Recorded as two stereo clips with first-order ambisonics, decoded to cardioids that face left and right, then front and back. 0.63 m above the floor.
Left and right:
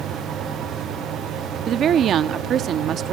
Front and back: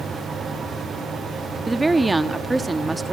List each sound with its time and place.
1.7 s a woman speaking: 110° right, 0.7 m